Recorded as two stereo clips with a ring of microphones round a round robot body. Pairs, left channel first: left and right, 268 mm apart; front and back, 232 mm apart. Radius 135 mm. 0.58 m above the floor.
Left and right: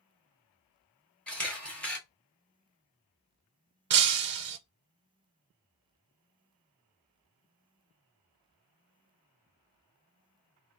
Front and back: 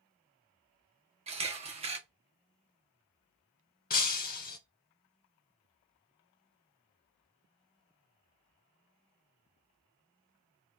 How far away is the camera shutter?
About 1.1 m.